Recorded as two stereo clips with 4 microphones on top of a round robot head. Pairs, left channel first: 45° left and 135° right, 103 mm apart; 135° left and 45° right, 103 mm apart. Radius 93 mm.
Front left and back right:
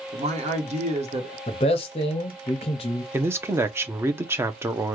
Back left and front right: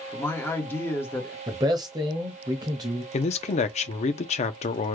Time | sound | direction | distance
0.1 | a man speaking | 155° right | 1.0 m
1.5 | a man speaking | 10° left | 0.6 m
3.1 | a man speaking | 155° left | 0.5 m